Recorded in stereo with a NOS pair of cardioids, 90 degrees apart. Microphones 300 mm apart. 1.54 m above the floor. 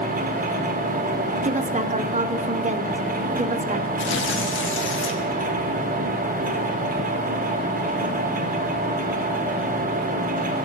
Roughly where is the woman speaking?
Ahead right.